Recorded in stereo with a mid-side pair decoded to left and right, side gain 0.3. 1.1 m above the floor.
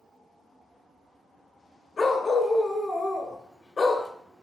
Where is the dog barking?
55° left, 1.8 m.